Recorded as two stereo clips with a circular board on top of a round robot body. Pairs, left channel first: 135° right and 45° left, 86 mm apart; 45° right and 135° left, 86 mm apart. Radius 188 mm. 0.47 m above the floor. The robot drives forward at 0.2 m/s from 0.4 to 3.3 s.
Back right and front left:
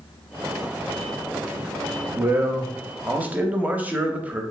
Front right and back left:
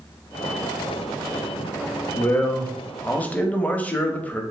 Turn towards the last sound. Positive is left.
turn(degrees=0)